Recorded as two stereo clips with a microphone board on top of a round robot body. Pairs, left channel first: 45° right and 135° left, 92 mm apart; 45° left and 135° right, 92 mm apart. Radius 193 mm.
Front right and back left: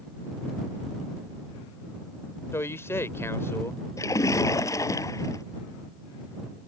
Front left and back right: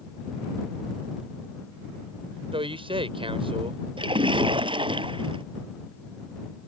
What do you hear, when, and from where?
2.5 s a man speaking: 110° right
4.0 s a splash: 100° right